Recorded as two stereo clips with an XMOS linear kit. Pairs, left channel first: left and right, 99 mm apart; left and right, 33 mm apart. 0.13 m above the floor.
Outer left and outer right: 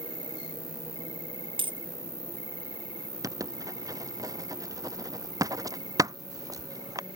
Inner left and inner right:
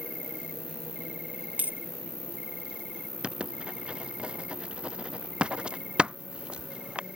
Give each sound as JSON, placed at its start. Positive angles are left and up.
{"t": 0.0, "sound": "an insect", "side_deg": -45}
{"t": 1.6, "sound": "a dropped coin", "side_deg": -65}
{"t": 3.2, "sound": "writing", "side_deg": -40}